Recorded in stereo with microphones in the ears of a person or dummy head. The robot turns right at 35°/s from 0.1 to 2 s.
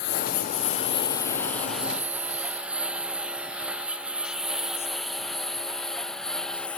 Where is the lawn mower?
55° left (ahead or behind); by 6.8 s 5° left (ahead or behind).